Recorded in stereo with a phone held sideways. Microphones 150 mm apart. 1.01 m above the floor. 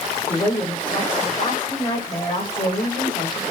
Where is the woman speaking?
25° left (ahead or behind), 6 m.